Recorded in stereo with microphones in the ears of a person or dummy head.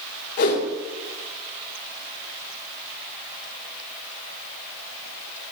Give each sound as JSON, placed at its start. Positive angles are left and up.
{"t": 0.4, "sound": "a whoosh", "side_deg": 55, "distance_m": 2.0}